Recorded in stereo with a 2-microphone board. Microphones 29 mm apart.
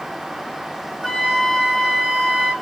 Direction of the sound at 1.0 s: 10° left (ahead or behind).